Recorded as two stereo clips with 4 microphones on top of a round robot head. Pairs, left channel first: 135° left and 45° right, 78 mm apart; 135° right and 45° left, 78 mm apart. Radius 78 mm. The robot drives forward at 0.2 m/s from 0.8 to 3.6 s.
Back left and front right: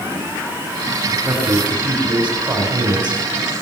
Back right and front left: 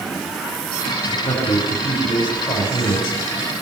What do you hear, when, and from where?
1.2 s a man speaking: 120° right, 4.5 m; by 3.2 s 125° right, 5 m